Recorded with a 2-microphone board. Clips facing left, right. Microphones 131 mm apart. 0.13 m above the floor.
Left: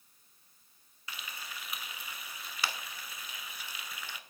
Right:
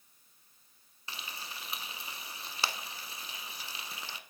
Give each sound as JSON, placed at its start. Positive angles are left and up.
{"t": 1.1, "sound": "frying", "side_deg": -30, "distance_m": 0.5}